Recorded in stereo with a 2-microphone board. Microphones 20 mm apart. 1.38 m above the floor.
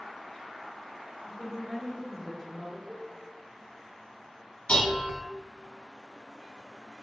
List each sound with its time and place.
1.2 s a woman speaking: 60° right (ahead or behind), 1.1 m; by 2.8 s 25° left (ahead or behind), 0.8 m
2.9 s a cowbell: 30° right (ahead or behind), 1.4 m
4.7 s dishes clattering: 50° left (ahead or behind), 1.1 m